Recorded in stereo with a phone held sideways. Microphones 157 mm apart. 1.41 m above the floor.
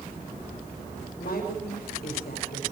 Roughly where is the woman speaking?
Left.